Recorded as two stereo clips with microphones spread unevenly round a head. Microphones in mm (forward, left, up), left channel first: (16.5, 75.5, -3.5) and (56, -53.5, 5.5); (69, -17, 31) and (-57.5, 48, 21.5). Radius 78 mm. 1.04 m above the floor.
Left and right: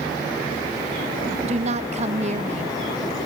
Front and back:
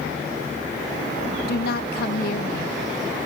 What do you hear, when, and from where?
1.5 s a woman speaking: 35° right, 1.1 m